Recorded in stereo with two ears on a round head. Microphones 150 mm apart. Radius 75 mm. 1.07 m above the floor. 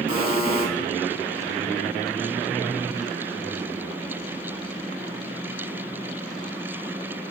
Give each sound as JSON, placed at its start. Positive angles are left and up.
{"t": 0.1, "sound": "a buzzer", "side_deg": -55, "distance_m": 1.2}